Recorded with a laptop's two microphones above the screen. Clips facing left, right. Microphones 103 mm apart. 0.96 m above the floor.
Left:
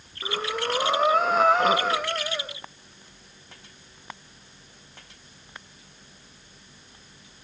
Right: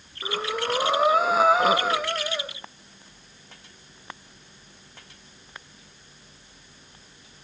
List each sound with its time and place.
0.2 s breathing: 5° right (ahead or behind), 1.1 m